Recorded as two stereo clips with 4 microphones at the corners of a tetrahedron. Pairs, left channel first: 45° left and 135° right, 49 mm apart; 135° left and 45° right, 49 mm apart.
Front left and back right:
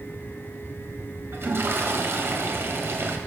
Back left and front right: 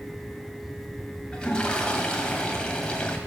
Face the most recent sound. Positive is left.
turn(degrees=-155)